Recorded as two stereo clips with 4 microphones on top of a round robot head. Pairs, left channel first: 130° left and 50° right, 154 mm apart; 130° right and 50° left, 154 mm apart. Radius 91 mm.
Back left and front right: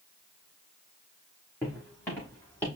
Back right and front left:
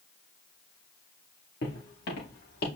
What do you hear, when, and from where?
1.6 s footsteps: 150° right, 4 m; by 2.6 s 155° right, 5 m